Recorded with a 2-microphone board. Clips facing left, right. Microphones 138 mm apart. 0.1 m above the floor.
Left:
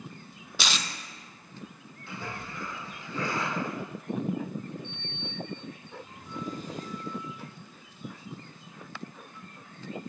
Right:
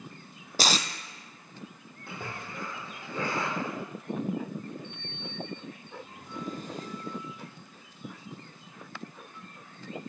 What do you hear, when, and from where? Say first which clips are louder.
0.6 s tape being pulled: right 5 dB; 40° right (ahead or behind), 0.6 m
2.1 s a splash: left 1 dB; 50° right (ahead or behind), 4.5 m
4.8 s a sliding door: left 1 dB; 50° right (ahead or behind), 2.5 m